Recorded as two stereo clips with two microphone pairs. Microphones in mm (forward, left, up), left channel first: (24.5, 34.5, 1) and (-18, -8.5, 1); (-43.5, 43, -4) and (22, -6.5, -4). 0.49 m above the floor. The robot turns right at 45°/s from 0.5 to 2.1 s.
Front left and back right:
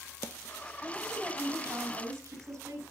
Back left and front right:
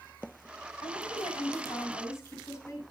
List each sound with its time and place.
0.8 s a woman speaking: 140° left, 5 m; by 2.8 s 160° right, 5 m